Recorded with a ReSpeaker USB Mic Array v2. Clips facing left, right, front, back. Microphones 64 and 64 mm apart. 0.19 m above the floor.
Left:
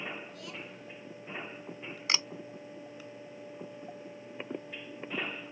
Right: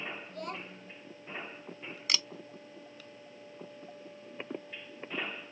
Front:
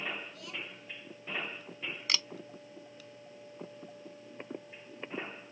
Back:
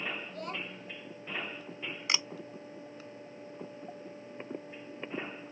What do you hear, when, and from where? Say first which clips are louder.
0.3 s a child speaking: right 3 dB, back 5 dB; 135° right
2.1 s a camera shutter: left 2 dB, back 2 dB; 125° left